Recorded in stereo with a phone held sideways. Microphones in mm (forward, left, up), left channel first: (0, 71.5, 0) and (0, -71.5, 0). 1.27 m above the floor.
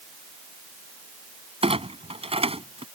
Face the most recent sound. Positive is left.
turn(degrees=-45)  # may be behind; listen again after turning